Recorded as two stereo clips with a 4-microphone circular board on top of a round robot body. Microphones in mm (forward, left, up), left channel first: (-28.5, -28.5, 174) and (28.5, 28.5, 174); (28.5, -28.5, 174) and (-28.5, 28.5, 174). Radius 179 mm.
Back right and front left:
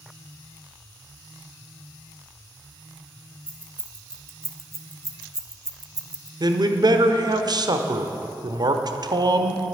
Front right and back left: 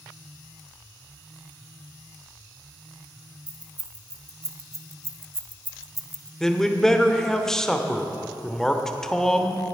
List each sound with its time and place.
3.5 s keys jangling: 110° left, 1.7 m; by 6.3 s 30° left, 0.9 m
6.4 s a man speaking: 40° left, 1.3 m